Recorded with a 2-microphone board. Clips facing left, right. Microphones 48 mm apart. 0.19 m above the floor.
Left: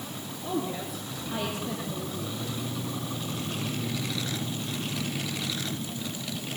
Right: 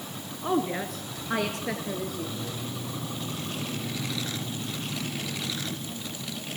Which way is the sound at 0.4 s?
50° right (ahead or behind).